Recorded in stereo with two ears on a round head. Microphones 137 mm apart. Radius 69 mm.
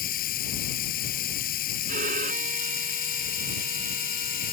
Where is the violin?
55° right (ahead or behind).